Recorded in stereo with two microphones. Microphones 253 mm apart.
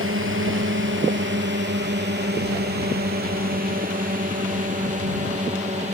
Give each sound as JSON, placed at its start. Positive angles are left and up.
{"t": 0.0, "sound": "a drone", "side_deg": -55}